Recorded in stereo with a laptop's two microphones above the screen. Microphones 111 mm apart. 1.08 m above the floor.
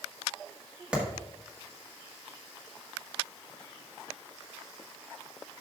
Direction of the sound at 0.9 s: 10° right (ahead or behind).